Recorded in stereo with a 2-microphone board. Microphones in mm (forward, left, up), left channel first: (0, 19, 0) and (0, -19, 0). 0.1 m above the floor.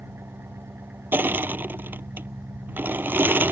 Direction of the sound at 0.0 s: 85° right.